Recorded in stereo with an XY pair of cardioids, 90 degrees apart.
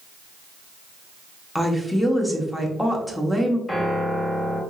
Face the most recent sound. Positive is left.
turn(degrees=20)